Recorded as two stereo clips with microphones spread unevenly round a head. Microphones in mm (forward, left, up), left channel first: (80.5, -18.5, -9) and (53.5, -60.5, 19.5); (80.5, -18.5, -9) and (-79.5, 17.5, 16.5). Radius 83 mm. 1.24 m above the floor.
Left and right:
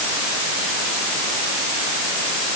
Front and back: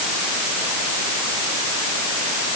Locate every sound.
Only background noise.